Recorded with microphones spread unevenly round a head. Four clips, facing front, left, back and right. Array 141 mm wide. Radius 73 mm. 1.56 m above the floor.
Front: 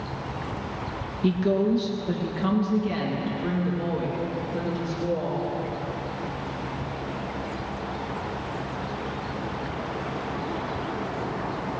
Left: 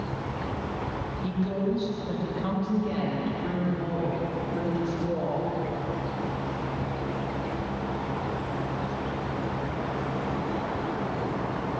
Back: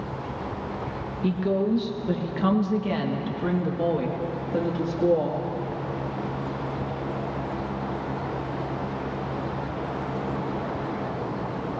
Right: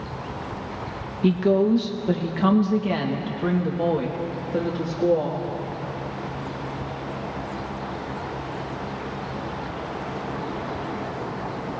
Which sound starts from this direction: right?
A woman speaking, at 1.2 s.